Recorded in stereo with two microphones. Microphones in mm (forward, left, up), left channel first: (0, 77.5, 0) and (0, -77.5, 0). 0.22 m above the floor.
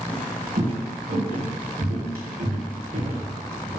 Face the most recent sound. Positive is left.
turn(degrees=-85)